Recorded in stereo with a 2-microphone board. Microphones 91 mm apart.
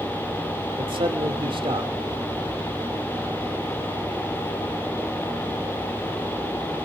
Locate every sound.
0.8 s a man speaking: 65° right (ahead or behind), 1.8 m